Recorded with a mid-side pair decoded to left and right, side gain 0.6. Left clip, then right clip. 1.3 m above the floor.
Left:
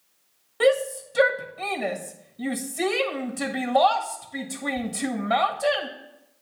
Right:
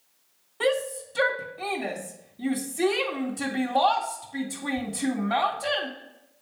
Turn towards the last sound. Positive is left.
turn(degrees=40)